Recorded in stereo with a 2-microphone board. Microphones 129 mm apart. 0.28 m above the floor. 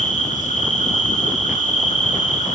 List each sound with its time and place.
0.0 s an insect: 75° left (ahead or behind), 0.9 m